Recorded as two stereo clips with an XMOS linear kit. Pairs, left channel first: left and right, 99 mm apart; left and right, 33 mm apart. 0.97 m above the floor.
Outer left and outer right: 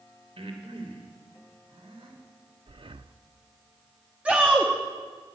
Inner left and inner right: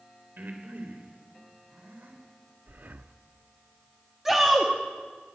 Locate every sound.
0.4 s breathing: 75° right (ahead or behind), 3.5 m
2.7 s breathing: 60° right (ahead or behind), 0.7 m
4.2 s a shout: 10° right (ahead or behind), 2.0 m